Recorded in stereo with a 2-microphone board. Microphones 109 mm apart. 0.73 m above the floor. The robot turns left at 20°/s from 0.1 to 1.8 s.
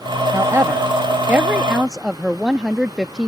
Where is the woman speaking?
30° right (ahead or behind); by 3.3 s 5° right (ahead or behind).